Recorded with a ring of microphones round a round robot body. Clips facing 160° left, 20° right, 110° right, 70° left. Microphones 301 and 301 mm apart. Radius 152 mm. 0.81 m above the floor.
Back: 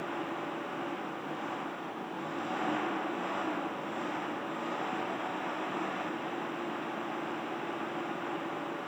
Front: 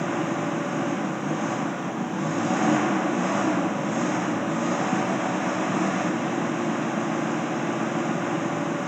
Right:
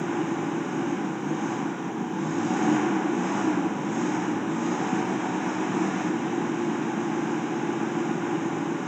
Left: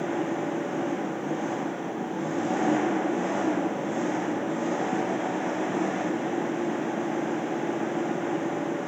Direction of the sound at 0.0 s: 45° right.